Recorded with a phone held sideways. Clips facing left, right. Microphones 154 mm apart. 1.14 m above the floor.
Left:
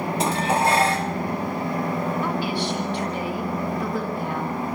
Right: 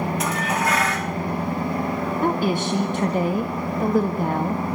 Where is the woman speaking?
50° right (ahead or behind), 1.8 m.